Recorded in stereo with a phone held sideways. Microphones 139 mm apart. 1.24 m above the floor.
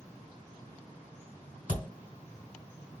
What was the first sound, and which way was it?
A thud, 35° left (ahead or behind).